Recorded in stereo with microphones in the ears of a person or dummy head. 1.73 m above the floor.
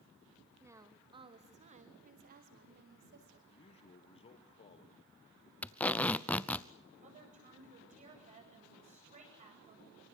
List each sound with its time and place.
0.6 s a woman speaking: 15° right (ahead or behind), 2.5 m; by 3.4 s 65° right (ahead or behind), 4.5 m
3.5 s a man speaking: 35° left (ahead or behind), 1.8 m
5.6 s tape being pulled: 10° left (ahead or behind), 0.7 m
7.0 s a woman speaking: 40° right (ahead or behind), 8.5 m